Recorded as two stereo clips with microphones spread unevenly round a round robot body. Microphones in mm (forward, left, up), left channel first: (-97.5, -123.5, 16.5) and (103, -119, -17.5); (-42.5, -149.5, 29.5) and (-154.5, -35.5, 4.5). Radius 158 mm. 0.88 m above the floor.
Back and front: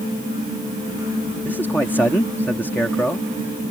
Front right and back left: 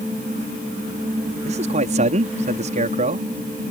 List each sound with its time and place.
1.4 s a man speaking: 95° left